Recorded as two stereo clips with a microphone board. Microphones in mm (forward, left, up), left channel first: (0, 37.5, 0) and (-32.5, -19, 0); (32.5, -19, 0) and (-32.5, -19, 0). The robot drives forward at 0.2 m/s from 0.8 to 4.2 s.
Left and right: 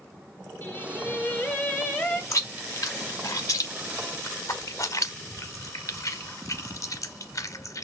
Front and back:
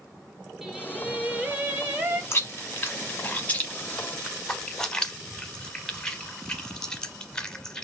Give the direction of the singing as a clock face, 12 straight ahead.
9 o'clock.